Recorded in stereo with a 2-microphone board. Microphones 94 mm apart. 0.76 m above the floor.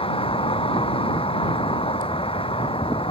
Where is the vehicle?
80° left.